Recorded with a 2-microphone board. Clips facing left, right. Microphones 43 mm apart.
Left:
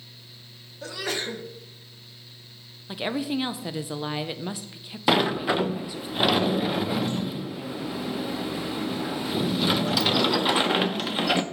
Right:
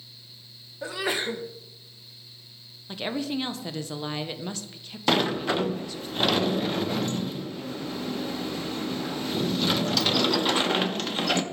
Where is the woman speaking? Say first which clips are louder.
Left 2 dB; 10° left (ahead or behind), 0.5 m.